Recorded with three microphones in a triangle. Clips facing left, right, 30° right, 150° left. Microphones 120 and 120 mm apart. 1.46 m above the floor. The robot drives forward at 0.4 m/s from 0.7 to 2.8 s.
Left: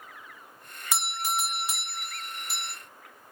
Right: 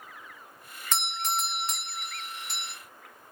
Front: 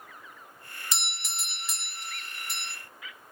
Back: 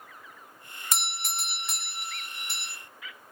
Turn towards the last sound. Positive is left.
turn(degrees=175)